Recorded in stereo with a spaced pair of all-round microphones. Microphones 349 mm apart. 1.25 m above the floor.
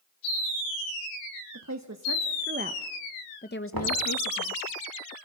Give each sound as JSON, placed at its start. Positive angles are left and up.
{"t": 1.5, "sound": "a woman speaking", "side_deg": -55, "distance_m": 1.6}
{"t": 3.7, "sound": "knocking", "side_deg": -80, "distance_m": 3.0}